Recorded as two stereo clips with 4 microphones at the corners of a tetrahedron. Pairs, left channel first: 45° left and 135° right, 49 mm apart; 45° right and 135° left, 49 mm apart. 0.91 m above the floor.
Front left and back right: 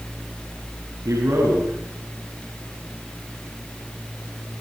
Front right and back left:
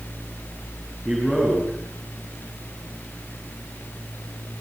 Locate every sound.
1.1 s a man speaking: 135° right, 9.5 m